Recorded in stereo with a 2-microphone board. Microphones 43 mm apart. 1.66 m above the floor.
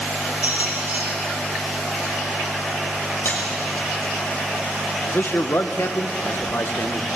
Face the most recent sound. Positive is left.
turn(degrees=65)  # may be behind; listen again after turning